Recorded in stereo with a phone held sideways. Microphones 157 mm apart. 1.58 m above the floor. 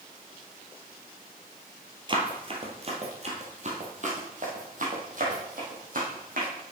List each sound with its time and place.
2.1 s running footsteps: 30° right (ahead or behind), 1.8 m; by 6.5 s 65° right (ahead or behind), 3.5 m